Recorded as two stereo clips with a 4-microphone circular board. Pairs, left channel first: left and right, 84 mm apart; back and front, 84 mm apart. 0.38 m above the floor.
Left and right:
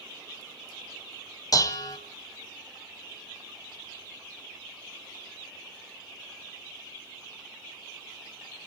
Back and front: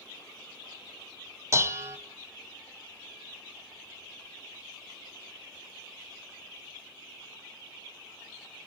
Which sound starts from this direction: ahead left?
Dishes clattering, at 1.5 s.